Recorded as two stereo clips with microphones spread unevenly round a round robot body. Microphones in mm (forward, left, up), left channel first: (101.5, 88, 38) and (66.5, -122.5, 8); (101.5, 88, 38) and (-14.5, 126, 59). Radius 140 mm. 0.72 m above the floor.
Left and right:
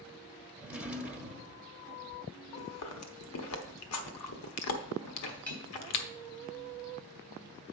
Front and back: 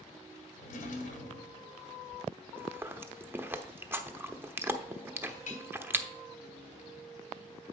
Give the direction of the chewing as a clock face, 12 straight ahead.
9 o'clock.